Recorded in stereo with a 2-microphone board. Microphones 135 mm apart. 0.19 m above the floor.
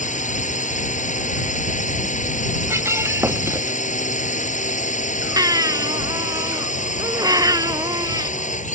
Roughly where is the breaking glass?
Centre.